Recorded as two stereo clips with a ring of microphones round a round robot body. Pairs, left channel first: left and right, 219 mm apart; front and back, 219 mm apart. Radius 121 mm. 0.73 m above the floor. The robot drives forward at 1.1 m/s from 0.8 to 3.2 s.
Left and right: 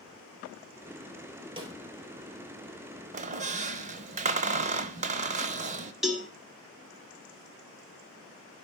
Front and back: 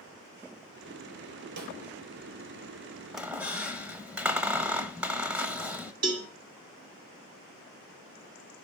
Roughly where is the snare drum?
Behind right.